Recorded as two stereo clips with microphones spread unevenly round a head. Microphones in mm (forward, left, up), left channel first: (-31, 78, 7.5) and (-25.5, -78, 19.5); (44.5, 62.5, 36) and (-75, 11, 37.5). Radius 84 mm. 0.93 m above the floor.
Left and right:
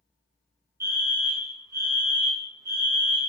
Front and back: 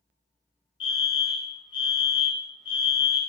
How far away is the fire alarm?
About 1.6 m.